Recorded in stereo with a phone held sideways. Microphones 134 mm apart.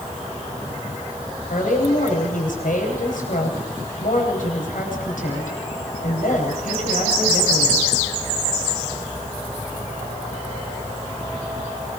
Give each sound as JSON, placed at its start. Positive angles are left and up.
{"t": 1.5, "sound": "a woman speaking", "side_deg": 85, "distance_m": 9.5}